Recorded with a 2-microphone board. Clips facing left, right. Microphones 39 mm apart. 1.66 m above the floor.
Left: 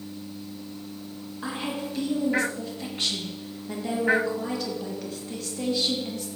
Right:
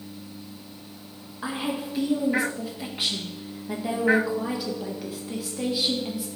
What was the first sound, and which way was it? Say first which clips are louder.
A woman speaking: right 2 dB; 10° right (ahead or behind).